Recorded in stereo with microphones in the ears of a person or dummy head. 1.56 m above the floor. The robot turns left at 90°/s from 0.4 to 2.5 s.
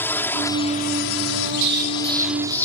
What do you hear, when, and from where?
0.0 s a drone: 10° left (ahead or behind); by 2.6 s 20° right (ahead or behind)
1.6 s an explosion: 110° right; by 2.6 s 170° left